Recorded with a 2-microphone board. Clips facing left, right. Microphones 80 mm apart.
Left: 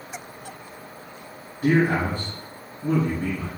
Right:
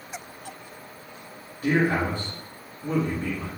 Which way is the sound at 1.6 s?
35° left (ahead or behind).